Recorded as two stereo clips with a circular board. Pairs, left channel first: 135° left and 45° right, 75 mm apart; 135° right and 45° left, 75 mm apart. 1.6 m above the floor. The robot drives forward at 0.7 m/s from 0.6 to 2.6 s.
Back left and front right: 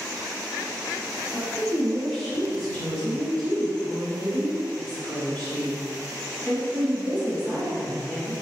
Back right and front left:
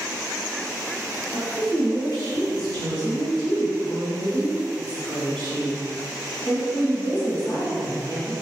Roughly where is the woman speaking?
Behind right.